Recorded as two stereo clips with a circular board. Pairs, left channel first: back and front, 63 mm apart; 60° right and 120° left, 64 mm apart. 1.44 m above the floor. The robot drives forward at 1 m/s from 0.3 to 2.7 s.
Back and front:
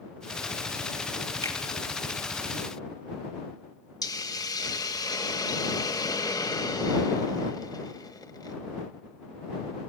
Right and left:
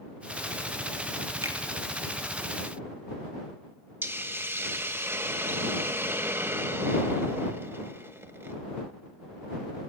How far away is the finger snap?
About 3 m.